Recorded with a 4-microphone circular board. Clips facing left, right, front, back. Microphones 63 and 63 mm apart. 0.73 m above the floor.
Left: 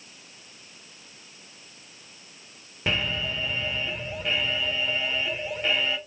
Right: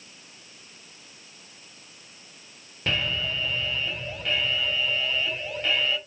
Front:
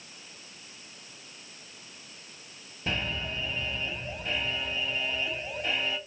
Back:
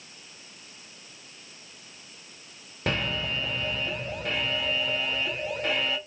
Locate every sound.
2.9 s an alarm: 165° left, 2 m